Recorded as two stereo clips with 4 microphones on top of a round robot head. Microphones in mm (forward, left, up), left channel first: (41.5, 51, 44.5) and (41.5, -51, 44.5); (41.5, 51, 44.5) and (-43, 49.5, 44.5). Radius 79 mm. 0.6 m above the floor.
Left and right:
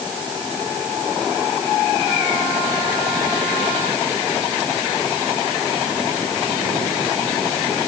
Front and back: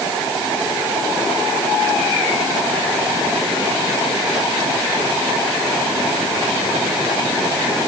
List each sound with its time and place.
Only background noise.